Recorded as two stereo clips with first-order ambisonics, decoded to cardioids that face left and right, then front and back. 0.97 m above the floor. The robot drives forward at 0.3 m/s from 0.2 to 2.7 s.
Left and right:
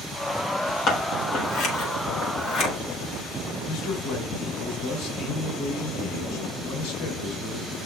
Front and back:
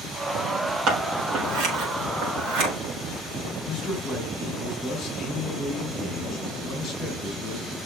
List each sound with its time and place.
0.9 s scissors: 135° left, 4 m; by 2.7 s 140° left, 4.5 m
3.7 s a man speaking: 65° left, 3.5 m